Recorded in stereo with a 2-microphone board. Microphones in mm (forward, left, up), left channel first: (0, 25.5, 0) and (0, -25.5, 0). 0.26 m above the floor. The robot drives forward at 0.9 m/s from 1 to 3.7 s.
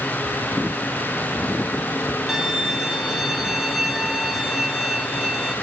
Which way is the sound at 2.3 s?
10° right (ahead or behind).